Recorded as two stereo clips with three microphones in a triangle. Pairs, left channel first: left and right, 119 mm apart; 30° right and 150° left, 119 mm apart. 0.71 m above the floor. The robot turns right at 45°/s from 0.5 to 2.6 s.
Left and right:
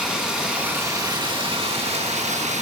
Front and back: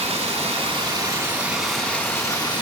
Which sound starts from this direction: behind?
Running water, at 0.0 s.